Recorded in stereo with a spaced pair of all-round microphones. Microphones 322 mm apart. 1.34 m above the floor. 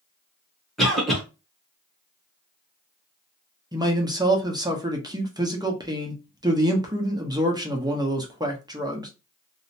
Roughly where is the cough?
Centre.